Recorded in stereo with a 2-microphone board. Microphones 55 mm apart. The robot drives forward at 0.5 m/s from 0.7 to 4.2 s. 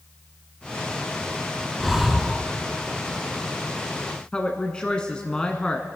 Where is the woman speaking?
20° left (ahead or behind), 1.0 m.